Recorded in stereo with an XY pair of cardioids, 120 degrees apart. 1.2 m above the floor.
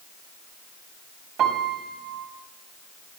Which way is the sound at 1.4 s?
60° right.